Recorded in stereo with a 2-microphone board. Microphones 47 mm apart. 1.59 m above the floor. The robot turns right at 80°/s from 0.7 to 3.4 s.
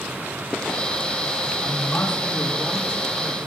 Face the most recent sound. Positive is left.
turn(degrees=-115)